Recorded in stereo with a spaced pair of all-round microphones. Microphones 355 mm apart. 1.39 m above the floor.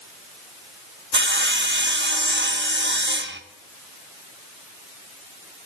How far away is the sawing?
About 1.0 m.